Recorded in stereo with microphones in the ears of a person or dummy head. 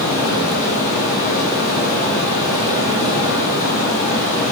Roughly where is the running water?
Left.